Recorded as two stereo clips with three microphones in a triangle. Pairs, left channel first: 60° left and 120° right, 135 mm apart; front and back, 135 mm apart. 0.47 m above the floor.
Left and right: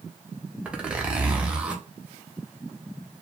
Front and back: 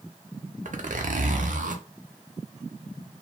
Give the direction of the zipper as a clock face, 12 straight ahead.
7 o'clock.